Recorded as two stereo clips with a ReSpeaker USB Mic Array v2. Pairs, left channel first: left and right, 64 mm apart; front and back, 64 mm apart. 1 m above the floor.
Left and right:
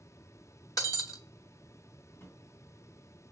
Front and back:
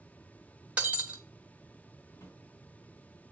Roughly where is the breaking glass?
Left.